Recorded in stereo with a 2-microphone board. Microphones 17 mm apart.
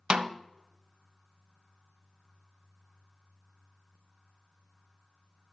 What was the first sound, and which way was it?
A snare drum, 65° right (ahead or behind).